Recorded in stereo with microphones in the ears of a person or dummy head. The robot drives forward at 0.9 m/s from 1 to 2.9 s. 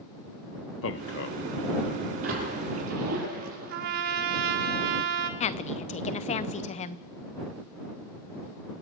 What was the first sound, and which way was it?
A man speaking, 60° left (ahead or behind).